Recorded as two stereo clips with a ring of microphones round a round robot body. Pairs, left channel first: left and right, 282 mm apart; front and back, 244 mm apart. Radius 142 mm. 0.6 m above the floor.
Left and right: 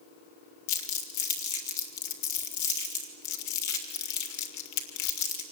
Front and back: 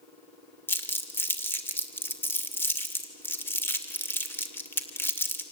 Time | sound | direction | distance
0.7 | crumpling | 80° left | 2.5 m